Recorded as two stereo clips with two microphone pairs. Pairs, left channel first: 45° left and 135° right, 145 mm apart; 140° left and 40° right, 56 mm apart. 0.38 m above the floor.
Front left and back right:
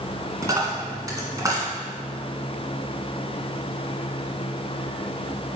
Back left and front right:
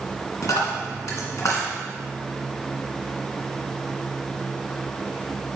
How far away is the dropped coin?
About 1.9 m.